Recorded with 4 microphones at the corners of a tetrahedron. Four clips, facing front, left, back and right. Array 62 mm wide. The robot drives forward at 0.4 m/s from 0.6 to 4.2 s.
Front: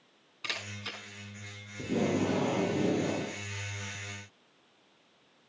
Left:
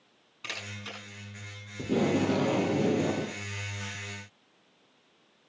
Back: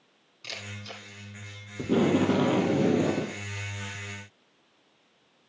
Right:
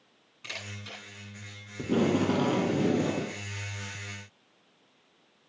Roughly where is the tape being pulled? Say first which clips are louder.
Right 1 dB, back 6 dB; behind.